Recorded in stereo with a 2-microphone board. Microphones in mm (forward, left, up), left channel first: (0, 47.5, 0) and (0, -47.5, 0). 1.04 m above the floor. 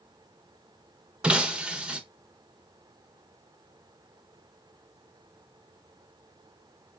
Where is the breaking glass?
10° right (ahead or behind), 0.7 m.